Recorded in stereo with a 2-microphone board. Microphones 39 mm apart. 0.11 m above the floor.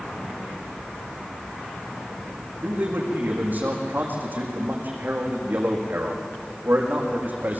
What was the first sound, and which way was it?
A man speaking, 45° right (ahead or behind).